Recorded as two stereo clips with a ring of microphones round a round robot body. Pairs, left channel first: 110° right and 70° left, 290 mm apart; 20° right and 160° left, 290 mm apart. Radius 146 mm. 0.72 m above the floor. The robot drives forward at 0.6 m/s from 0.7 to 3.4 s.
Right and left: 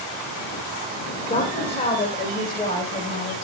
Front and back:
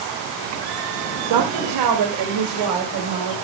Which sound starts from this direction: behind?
A woman speaking, at 1.3 s.